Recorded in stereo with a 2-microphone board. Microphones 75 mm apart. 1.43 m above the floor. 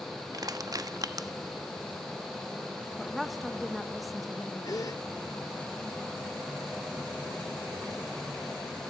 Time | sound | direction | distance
0.3 | crushing | 55° right (ahead or behind) | 1.2 m
3.0 | a woman speaking | centre (ahead or behind) | 1.8 m
4.7 | a gasp | 55° left (ahead or behind) | 1.6 m